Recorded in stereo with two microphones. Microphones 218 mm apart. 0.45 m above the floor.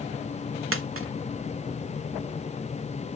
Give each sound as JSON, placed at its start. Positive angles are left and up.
{"t": 0.7, "sound": "a dropped coin", "side_deg": -70, "distance_m": 0.7}